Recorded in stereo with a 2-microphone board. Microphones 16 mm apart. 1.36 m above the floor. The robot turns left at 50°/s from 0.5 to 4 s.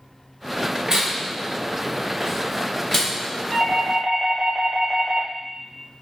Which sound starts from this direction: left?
A doorbell, at 3.5 s.